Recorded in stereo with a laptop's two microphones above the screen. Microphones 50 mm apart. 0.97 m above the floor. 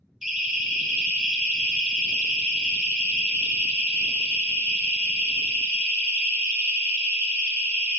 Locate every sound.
0.2 s a siren: 15° right (ahead or behind), 6.5 m; by 8.0 s 55° right (ahead or behind), 6.5 m